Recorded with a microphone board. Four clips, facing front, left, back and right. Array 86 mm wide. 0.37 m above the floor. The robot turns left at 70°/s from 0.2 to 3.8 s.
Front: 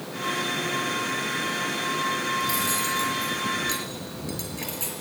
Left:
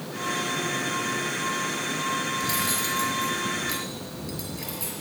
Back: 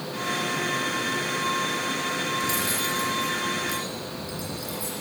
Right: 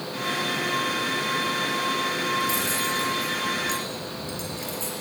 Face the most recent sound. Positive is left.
turn(degrees=5)